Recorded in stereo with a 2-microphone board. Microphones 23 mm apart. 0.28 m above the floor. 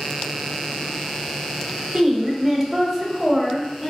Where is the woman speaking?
15° right (ahead or behind), 1.0 m; by 3.9 s 5° left (ahead or behind), 0.9 m.